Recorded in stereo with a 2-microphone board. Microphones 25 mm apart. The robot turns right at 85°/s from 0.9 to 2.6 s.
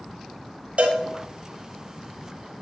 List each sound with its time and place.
0.8 s a cowbell: 55° right (ahead or behind), 1.1 m; by 1.0 s 50° right (ahead or behind), 1.1 m